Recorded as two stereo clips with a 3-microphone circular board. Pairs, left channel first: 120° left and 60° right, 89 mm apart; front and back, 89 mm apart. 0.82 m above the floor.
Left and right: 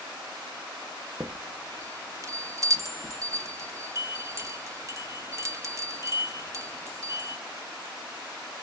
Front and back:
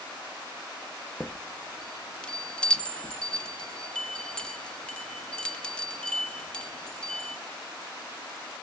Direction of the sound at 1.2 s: 70° right.